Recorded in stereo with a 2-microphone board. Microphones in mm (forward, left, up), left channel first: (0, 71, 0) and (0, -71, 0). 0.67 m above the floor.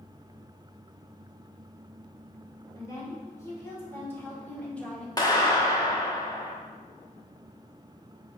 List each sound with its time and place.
2.8 s a woman speaking: 25° left (ahead or behind), 3 m; by 5.1 s 5° left (ahead or behind), 1.8 m
5.2 s a clap: 30° left (ahead or behind), 1.1 m